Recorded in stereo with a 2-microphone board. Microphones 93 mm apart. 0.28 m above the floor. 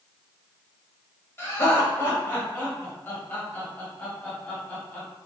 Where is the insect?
I don't hear an insect.